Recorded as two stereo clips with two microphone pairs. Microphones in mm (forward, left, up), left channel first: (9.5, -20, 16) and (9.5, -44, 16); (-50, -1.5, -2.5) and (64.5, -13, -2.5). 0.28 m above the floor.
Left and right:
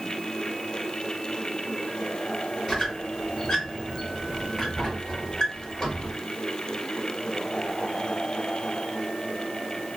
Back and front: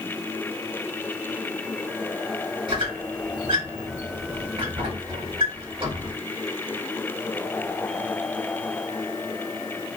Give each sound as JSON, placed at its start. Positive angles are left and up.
{"t": 2.7, "sound": "a squeak", "azimuth_deg": 30, "distance_m": 1.8}